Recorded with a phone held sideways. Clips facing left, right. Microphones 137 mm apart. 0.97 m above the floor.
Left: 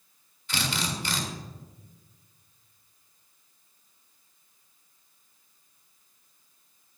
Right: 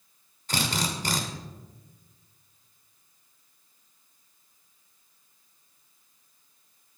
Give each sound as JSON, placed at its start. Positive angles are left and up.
{"t": 0.5, "sound": "a drill", "side_deg": -45, "distance_m": 2.0}